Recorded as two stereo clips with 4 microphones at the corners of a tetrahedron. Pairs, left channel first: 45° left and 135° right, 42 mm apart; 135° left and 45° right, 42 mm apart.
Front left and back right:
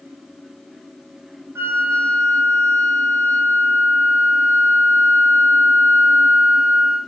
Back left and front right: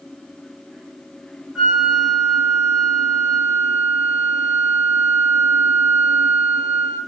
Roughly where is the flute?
Behind right.